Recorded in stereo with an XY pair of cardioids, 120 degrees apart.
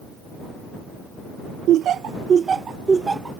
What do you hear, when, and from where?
1.7 s laughter: 70° right; by 3.4 s 15° right